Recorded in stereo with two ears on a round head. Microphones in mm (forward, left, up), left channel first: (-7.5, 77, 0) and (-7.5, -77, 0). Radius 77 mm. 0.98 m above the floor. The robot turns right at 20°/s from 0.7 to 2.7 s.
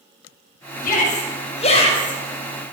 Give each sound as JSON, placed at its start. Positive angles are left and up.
{"t": 0.8, "sound": "a shout", "side_deg": 55, "distance_m": 4.5}